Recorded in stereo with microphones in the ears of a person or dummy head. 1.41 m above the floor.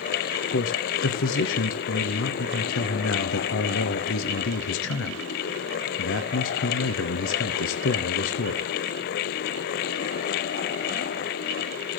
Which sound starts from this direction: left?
A man speaking, at 0.5 s.